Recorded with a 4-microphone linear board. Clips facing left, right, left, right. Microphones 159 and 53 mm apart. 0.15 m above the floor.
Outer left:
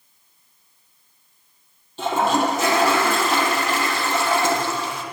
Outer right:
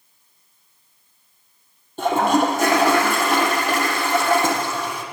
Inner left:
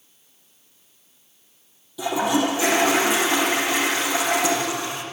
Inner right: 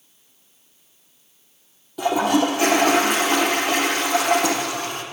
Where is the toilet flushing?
55° right (ahead or behind), 4 m.